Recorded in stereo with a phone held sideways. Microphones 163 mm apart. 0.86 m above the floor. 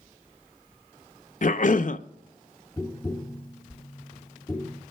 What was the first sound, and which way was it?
A cough, 60° left (ahead or behind).